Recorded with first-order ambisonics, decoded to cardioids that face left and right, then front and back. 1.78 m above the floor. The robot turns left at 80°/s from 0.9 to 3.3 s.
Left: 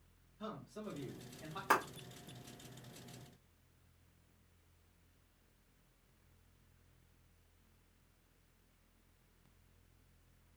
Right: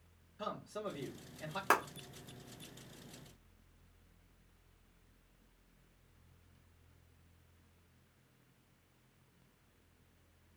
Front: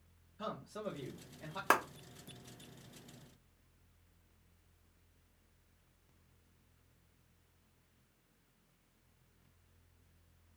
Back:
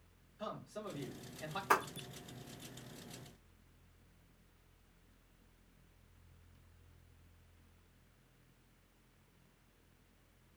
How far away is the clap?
About 1.2 m.